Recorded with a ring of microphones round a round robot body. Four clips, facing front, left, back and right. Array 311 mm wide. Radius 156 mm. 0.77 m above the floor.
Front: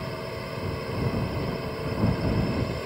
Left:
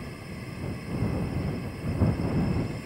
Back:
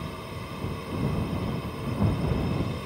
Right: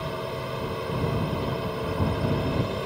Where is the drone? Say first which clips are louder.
Right 9 dB, front 4 dB; 65° right.